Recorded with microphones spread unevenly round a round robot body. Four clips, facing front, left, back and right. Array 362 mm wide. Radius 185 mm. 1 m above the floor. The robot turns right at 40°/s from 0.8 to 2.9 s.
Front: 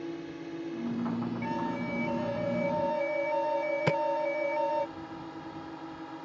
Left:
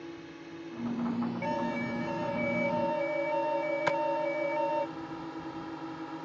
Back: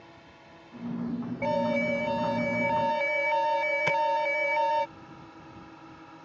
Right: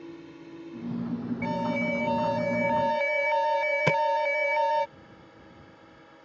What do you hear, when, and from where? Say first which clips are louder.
0.0 s a drone: right 1 dB, front 14 dB; 5° right; by 6.2 s 80° left
1.4 s an alarm: right 4 dB, back 6 dB; 170° left; by 4.9 s 130° right
3.9 s tapping: right 5 dB, back 1 dB; 55° right